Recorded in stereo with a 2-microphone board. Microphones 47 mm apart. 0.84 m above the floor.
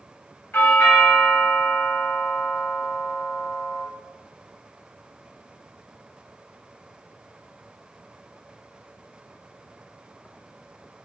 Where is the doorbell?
55° left (ahead or behind), 1.3 m.